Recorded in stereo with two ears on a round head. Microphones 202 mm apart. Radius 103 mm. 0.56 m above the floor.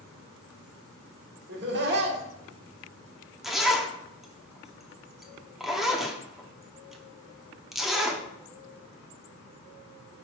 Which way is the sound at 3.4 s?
Centre (ahead or behind).